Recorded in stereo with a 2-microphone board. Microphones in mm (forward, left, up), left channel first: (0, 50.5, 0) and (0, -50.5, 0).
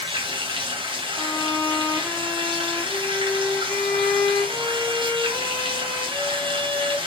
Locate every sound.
0.0 s running water: 55° right (ahead or behind), 1.8 m
1.1 s a violin: 15° left (ahead or behind), 4 m